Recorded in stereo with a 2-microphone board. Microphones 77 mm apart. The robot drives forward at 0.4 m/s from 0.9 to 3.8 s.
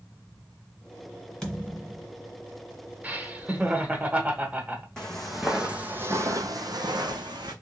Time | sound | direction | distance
1.4 | a thud | 5° left (ahead or behind) | 1.8 m
3.0 | laughter | 20° right (ahead or behind) | 0.8 m
5.0 | footsteps | 10° left (ahead or behind) | 1.3 m